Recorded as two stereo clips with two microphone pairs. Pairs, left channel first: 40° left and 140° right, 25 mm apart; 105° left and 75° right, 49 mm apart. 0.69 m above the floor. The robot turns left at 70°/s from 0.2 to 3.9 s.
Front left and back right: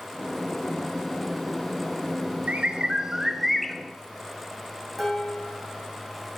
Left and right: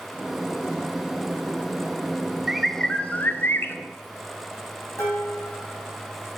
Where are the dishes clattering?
125° left, 3.5 m.